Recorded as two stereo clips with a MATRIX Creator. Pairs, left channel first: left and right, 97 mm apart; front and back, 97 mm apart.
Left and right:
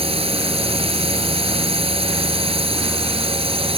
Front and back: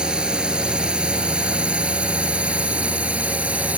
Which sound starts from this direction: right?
A drone, at 0.0 s.